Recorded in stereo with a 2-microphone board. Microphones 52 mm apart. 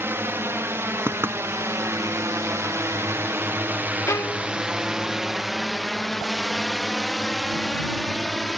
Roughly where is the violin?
Left.